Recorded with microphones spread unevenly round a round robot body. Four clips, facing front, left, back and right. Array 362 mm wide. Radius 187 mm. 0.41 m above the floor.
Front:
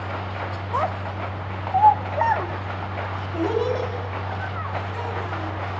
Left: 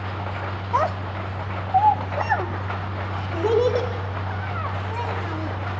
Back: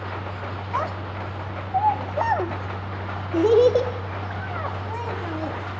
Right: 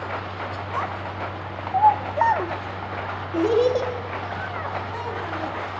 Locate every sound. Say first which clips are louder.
0.7 s a child speaking: left 7 dB, front 3 dB; 30° left, 0.6 m; by 5.6 s 165° right, 2 m